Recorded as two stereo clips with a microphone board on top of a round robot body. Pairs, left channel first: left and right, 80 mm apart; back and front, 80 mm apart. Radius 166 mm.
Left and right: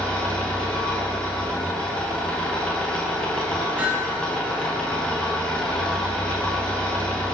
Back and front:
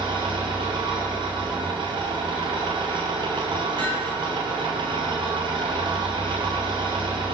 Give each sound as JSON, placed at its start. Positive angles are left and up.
{"t": 0.0, "sound": "an engine running", "azimuth_deg": 10, "distance_m": 7.0}
{"t": 3.8, "sound": "hammering", "azimuth_deg": -20, "distance_m": 7.5}